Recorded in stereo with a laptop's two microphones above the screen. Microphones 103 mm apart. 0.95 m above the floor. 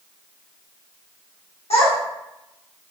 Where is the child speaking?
80° left, 1.2 m.